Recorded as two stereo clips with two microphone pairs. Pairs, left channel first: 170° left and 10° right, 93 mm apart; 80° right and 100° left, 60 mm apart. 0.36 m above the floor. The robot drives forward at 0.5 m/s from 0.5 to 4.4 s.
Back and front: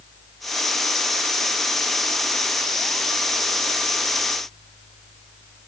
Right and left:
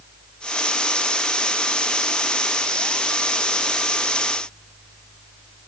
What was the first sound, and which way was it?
Only background noise.